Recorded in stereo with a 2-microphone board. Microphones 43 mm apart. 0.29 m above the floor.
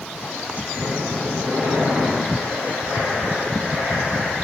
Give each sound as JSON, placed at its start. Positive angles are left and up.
{"t": 0.7, "sound": "breathing", "side_deg": -75, "distance_m": 2.0}